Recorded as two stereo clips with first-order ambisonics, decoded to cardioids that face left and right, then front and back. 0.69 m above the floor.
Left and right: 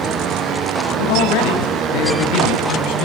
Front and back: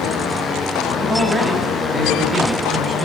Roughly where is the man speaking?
Left.